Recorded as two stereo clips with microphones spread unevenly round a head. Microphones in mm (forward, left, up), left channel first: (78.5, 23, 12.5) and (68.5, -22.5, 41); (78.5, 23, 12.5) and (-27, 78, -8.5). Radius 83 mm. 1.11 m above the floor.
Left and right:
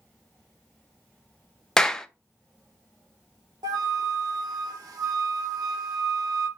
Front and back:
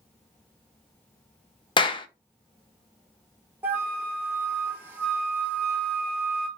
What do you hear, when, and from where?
1.8 s a clap: 25° left, 0.6 m
3.6 s a flute: 135° right, 0.5 m